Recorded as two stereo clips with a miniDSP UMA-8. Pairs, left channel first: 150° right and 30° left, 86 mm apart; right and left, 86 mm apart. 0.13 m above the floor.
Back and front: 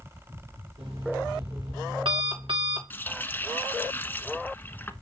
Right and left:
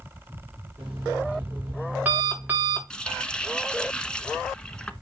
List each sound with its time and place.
0.8 s an alarm clock: 20° left, 6.5 m
2.9 s a running tap: 150° right, 1.0 m